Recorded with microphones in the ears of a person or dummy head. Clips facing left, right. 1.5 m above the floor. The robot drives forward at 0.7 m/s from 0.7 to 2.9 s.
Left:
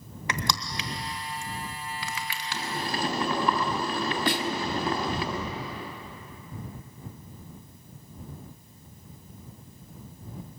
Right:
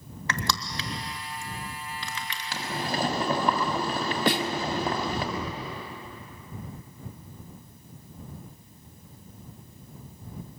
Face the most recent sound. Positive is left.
turn(degrees=-50)  # may be behind; listen again after turning